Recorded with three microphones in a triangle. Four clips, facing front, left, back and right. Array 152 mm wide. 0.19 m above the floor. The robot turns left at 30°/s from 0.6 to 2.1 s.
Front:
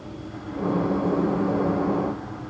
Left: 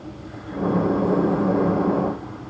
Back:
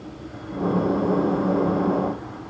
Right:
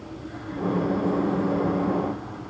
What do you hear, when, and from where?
Only background noise.